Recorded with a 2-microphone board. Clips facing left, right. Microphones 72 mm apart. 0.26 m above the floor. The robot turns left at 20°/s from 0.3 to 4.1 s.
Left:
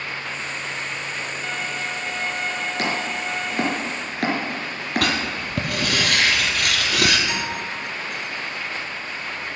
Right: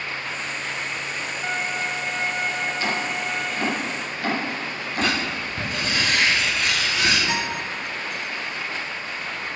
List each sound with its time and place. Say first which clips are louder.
1.4 s a violin: right 4 dB; 130° right, 1.1 m; by 3.8 s 175° right, 1.1 m
2.8 s chopping: even; 75° left (ahead or behind), 5 m; by 5.1 s 65° left (ahead or behind), 5 m
5.0 s writing: right 2 dB; 70° left (ahead or behind), 2.5 m
7.3 s a guitar: right 1 dB; 25° right (ahead or behind), 5.5 m